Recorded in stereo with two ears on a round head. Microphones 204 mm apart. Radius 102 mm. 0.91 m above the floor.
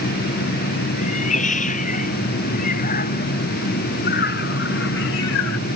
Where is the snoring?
I don't hear snoring.